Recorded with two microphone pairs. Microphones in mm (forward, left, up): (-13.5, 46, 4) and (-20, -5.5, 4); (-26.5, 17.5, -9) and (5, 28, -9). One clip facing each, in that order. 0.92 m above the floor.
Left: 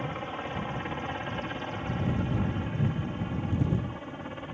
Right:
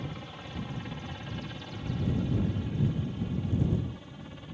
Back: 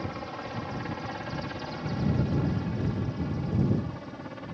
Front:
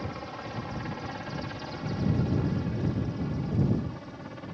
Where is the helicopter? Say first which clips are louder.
Left 7 dB, back 1 dB; 110° left; by 4.6 s 115° left.